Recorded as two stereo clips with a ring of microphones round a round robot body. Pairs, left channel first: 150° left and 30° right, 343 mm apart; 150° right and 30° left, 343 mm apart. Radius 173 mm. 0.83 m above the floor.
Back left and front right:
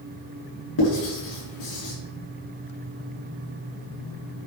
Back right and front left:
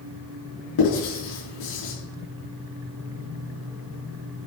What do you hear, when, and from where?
0.8 s writing: 175° right, 6 m